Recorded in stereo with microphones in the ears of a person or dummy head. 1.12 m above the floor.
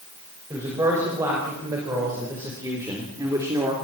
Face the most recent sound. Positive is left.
turn(degrees=-20)  # may be behind; listen again after turning